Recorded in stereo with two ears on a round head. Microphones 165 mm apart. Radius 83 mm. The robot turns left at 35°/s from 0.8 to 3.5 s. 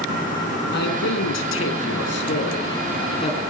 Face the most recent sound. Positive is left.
turn(degrees=20)